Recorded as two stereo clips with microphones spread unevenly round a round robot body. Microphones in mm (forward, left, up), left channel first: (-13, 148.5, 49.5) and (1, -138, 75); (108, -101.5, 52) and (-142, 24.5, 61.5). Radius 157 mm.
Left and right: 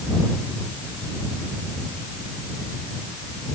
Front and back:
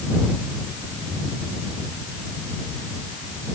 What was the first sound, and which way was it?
Only background noise.